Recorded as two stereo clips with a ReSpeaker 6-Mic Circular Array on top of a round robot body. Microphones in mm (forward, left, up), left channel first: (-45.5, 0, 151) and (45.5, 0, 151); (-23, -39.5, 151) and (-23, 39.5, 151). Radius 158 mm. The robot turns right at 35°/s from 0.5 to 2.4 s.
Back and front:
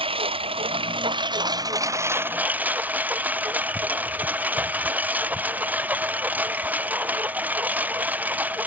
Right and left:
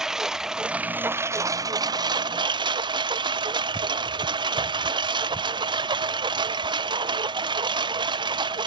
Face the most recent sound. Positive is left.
turn(degrees=75)